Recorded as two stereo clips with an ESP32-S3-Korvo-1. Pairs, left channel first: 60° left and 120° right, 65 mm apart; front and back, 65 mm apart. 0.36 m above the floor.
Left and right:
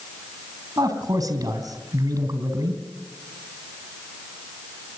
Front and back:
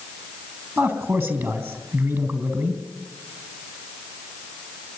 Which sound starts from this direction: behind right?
A man speaking, at 0.8 s.